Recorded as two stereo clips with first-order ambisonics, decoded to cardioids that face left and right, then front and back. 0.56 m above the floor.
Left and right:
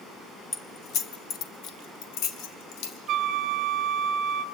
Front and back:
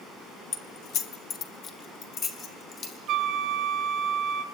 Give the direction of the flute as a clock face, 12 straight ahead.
4 o'clock.